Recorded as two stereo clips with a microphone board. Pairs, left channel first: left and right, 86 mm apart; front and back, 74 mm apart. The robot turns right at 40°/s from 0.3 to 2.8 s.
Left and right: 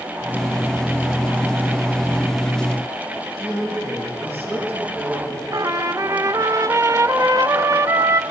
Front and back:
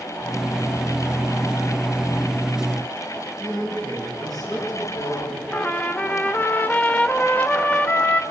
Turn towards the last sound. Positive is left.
turn(degrees=-60)